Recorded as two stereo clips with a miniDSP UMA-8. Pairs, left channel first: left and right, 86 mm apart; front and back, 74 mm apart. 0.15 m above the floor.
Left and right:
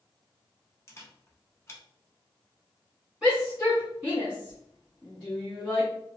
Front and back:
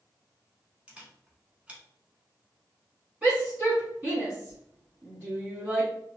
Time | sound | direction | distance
0.9 | a camera shutter | 115° left | 0.8 m
3.2 | a shout | 145° right | 1.8 m